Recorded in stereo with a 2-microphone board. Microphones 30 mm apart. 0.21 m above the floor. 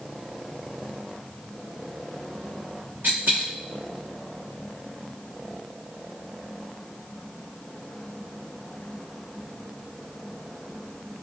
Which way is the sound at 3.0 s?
90° right.